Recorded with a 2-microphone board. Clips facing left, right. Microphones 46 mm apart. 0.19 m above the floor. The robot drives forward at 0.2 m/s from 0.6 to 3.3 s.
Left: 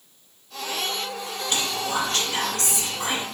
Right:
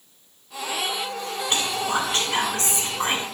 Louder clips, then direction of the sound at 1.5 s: Right 2 dB; 30° right (ahead or behind).